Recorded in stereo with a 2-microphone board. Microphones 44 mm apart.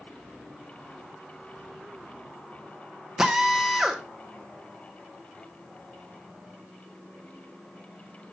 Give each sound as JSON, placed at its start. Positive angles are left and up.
{"t": 3.2, "sound": "a drill", "side_deg": -10, "distance_m": 1.2}